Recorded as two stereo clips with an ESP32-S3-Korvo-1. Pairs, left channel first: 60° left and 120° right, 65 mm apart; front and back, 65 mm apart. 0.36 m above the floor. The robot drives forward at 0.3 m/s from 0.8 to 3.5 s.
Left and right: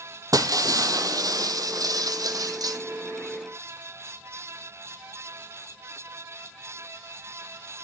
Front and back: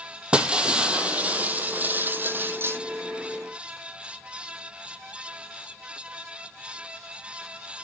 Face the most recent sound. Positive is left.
turn(degrees=-135)